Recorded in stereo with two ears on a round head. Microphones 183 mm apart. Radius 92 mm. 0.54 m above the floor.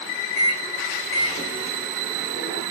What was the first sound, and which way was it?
A microwave, 65° left (ahead or behind).